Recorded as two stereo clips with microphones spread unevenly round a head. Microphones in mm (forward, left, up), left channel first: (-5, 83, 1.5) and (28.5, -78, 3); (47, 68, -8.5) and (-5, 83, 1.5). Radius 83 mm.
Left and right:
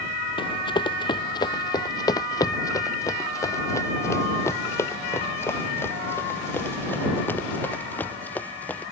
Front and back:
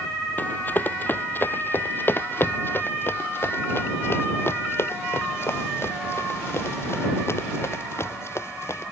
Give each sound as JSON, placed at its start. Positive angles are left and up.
{"t": 0.4, "sound": "running footsteps", "azimuth_deg": 40}